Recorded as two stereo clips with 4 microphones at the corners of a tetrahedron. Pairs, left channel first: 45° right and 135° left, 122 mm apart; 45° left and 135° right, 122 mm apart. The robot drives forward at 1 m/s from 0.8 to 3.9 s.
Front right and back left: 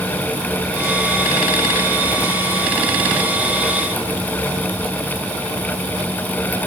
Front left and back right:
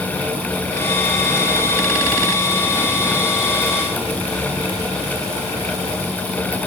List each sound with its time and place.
Only background noise.